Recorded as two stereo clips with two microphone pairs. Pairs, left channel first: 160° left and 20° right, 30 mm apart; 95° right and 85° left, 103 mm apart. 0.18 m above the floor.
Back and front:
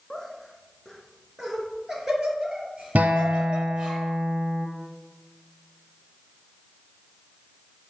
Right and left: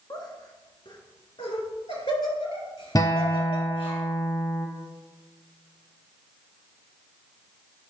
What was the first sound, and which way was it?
Laughter, 125° right.